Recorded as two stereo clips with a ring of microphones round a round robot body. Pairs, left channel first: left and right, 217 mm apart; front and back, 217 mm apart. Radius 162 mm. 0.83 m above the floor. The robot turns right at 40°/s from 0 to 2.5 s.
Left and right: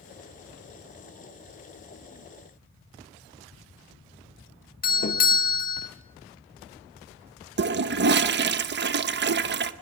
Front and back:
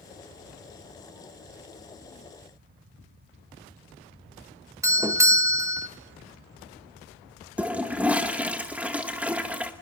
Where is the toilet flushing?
95° right, 0.9 m.